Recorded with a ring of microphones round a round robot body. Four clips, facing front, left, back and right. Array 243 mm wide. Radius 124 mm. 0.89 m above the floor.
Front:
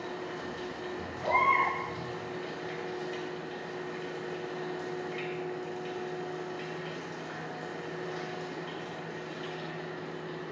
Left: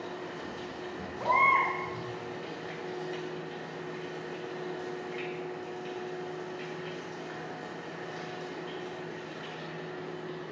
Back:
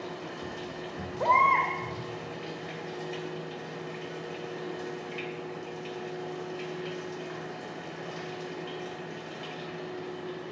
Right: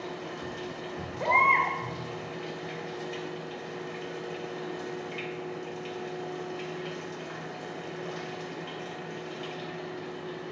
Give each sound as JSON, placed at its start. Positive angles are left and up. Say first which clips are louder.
{"t": 0.0, "sound": "running water", "louder": "right 2 dB, even", "azimuth_deg": -135, "distance_m": 2.5}
{"t": 1.2, "sound": "a baby crying", "louder": "right 1 dB, back 4 dB", "azimuth_deg": -160, "distance_m": 2.0}